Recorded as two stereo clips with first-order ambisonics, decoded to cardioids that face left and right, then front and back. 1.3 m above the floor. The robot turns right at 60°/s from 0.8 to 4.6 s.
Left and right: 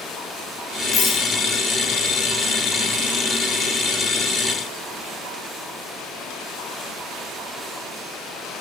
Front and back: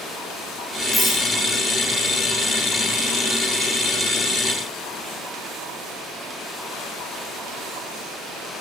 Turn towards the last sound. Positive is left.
turn(degrees=-75)